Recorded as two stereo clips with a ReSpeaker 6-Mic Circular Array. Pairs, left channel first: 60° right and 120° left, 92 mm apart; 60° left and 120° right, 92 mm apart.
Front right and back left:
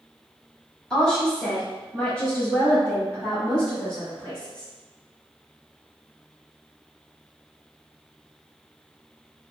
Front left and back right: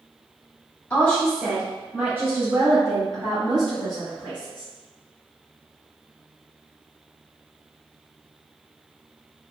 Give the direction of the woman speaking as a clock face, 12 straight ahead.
12 o'clock.